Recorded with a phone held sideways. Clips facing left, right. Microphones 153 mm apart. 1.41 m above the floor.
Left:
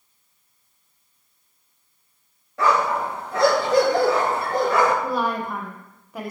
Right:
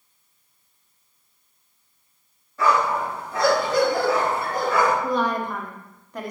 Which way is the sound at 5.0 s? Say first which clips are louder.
Right 1 dB; 5° left (ahead or behind).